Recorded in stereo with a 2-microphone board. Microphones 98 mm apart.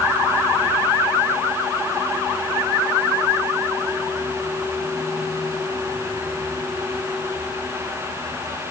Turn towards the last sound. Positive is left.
No sound to turn to.